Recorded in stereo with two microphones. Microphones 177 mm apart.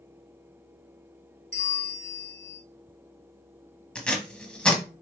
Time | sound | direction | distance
1.5 | a bell | 75° left (ahead or behind) | 0.8 m
4.0 | tape being pulled | 5° left (ahead or behind) | 0.7 m